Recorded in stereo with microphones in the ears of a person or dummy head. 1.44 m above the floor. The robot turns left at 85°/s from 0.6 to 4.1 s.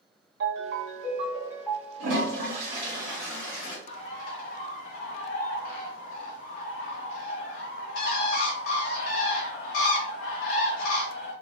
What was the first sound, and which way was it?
A ringtone, 90° right.